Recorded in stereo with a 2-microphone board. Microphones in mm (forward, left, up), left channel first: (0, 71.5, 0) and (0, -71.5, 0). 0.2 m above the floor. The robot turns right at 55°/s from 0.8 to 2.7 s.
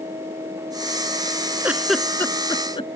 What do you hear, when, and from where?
1.6 s a giggle: 15° right (ahead or behind); by 2.9 s 40° left (ahead or behind)